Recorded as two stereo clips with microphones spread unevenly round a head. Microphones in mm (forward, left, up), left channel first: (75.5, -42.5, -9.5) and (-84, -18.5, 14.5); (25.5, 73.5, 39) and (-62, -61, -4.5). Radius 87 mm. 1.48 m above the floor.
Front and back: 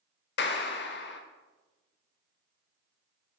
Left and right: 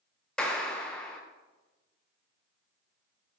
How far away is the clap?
About 1.2 m.